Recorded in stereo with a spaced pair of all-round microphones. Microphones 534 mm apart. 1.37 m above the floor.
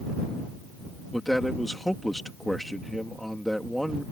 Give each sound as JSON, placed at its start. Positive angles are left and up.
{"t": 1.1, "sound": "a man speaking", "side_deg": 0}